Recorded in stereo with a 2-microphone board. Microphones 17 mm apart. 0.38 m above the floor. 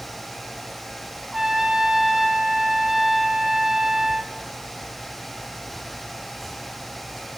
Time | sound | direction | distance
1.3 | a trumpet | 25° right (ahead or behind) | 1.2 m